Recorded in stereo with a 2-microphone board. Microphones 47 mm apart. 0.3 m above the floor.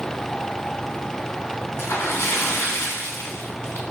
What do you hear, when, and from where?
1.8 s a splash: 65° left (ahead or behind), 2 m